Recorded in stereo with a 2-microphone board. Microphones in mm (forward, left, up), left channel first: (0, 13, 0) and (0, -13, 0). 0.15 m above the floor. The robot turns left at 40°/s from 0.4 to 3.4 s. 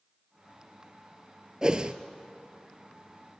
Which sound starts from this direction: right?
A whoosh, at 1.6 s.